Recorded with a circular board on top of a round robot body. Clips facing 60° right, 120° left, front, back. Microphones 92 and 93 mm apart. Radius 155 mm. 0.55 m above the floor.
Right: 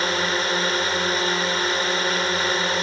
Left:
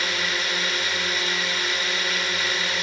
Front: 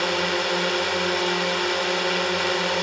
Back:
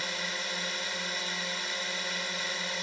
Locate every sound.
0.0 s a drone: 10° right